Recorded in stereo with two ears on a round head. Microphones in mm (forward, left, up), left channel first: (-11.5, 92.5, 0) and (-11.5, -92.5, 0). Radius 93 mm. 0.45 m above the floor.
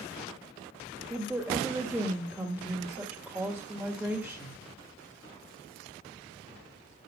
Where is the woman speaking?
5° right (ahead or behind), 1.6 m.